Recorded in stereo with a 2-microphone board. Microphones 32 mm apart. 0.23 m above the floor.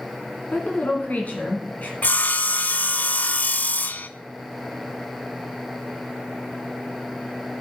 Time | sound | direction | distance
0.5 | a woman speaking | 55° left (ahead or behind) | 1.9 m
2.0 | sawing | 60° left (ahead or behind) | 0.5 m